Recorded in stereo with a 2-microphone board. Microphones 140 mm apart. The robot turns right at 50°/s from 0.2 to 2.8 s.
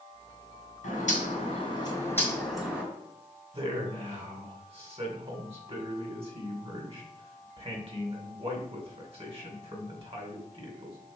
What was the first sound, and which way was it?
A bird, 95° left.